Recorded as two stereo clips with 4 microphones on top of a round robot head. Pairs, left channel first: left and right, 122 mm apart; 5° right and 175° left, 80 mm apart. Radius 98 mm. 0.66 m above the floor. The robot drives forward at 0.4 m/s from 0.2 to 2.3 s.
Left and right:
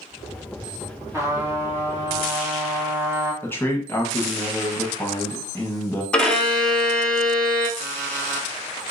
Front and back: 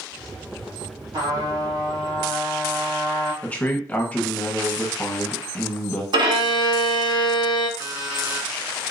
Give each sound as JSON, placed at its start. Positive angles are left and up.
{"t": 1.1, "sound": "a trumpet", "azimuth_deg": -155, "distance_m": 2.0}
{"t": 3.4, "sound": "a man speaking", "azimuth_deg": 45, "distance_m": 1.0}
{"t": 6.1, "sound": "a violin", "azimuth_deg": 170, "distance_m": 0.8}
{"t": 7.8, "sound": "an alarm clock", "azimuth_deg": -130, "distance_m": 1.7}